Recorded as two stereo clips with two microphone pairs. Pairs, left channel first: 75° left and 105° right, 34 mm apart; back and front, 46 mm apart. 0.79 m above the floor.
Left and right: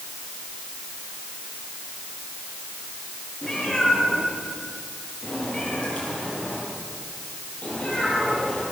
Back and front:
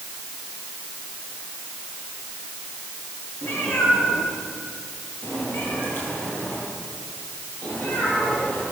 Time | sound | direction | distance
3.4 | a cat meowing | 155° left | 7.5 m